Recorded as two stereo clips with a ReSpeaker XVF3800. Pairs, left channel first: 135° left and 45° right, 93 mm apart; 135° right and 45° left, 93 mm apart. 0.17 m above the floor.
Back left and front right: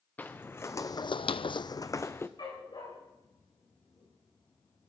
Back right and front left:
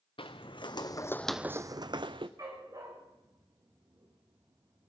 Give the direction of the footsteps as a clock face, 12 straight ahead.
5 o'clock.